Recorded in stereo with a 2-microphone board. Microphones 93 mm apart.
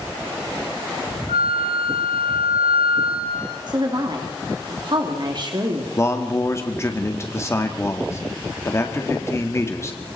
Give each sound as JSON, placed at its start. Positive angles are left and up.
{"t": 1.3, "sound": "a flute", "side_deg": -80, "distance_m": 3.5}
{"t": 3.7, "sound": "a woman speaking", "side_deg": -50, "distance_m": 3.0}
{"t": 6.0, "sound": "a man speaking", "side_deg": 30, "distance_m": 2.0}